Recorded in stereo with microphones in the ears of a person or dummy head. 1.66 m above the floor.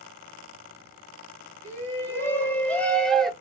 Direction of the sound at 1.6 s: 15° left (ahead or behind).